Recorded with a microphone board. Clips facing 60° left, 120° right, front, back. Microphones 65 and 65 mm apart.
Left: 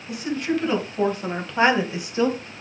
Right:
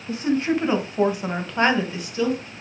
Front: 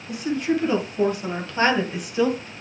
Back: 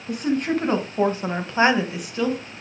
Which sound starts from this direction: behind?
A woman speaking, at 0.1 s.